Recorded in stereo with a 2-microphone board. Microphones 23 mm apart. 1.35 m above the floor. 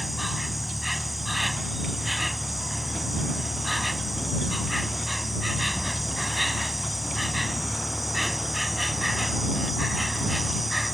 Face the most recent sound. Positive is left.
turn(degrees=0)  # may be behind; listen again after turning